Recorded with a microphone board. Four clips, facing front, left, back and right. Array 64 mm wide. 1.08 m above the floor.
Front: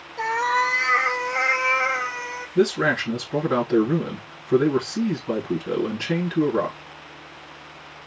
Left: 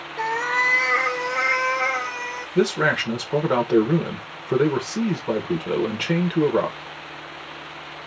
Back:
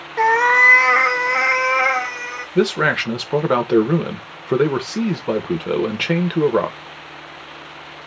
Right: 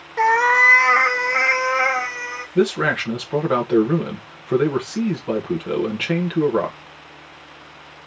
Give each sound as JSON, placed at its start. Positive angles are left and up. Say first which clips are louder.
{"t": 0.2, "sound": "a cat meowing", "louder": "right 8 dB, back 8 dB", "azimuth_deg": -145, "distance_m": 0.6}
{"t": 2.5, "sound": "a man speaking", "louder": "right 1 dB, back 3 dB", "azimuth_deg": 180, "distance_m": 1.3}